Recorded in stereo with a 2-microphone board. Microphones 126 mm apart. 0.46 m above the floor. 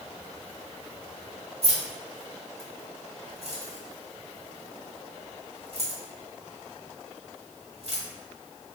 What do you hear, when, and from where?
1.6 s keys jangling: 50° right (ahead or behind), 1.3 m